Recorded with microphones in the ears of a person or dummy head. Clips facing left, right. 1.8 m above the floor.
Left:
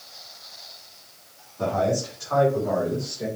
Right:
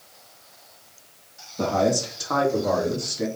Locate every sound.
1.6 s a man speaking: 65° right (ahead or behind), 3 m; by 3.3 s 80° right, 3.5 m